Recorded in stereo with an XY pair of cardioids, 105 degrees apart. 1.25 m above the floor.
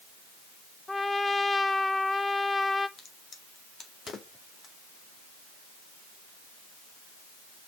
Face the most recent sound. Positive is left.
turn(degrees=45)